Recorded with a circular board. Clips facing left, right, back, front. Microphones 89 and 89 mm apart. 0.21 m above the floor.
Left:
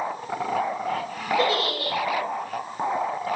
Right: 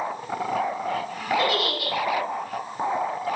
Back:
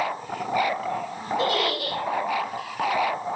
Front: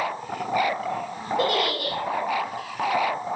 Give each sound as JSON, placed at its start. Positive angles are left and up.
{"t": 1.4, "sound": "a giggle", "azimuth_deg": 30, "distance_m": 7.0}